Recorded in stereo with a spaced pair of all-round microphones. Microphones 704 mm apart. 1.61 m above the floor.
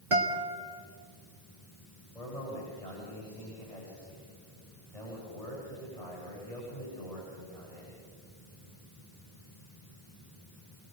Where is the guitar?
50° right (ahead or behind), 2.5 m.